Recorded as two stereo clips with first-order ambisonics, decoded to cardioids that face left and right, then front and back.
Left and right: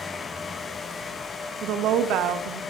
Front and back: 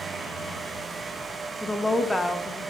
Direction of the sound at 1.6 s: 80° right.